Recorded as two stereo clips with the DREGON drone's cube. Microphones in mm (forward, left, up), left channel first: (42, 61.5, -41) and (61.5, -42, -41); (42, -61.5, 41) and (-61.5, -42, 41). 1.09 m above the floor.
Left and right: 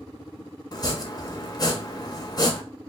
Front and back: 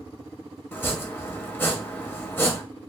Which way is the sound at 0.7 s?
55° left.